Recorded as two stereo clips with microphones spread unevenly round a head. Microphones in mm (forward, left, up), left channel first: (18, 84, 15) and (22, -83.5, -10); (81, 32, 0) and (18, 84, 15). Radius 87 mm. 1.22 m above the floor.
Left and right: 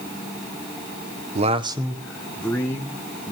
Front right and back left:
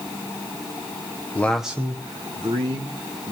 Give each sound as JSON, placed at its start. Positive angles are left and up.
{"t": 1.4, "sound": "a man speaking", "azimuth_deg": -90, "distance_m": 0.7}